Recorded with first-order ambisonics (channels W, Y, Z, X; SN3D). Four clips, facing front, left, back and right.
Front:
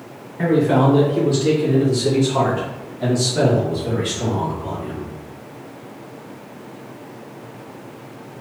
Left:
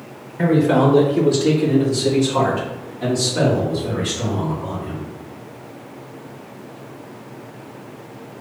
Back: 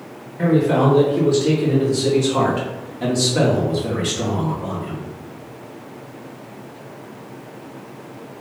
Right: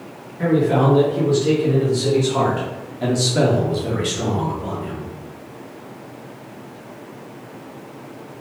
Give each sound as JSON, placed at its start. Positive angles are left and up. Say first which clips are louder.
{"t": 0.4, "sound": "a man speaking", "louder": "left 2 dB, even", "azimuth_deg": 70, "distance_m": 1.8}